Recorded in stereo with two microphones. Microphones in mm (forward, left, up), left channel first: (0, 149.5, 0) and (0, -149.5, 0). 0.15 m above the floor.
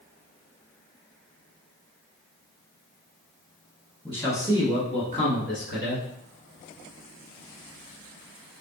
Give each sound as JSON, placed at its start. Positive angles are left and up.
{"t": 4.0, "sound": "a man speaking", "side_deg": 5, "distance_m": 1.5}